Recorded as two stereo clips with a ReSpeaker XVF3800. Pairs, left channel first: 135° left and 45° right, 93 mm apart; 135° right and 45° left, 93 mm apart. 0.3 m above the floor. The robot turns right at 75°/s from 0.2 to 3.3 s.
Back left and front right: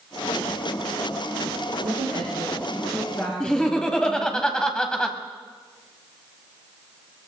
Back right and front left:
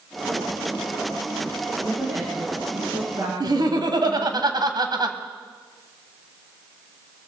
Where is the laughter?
55° left, 1.7 m.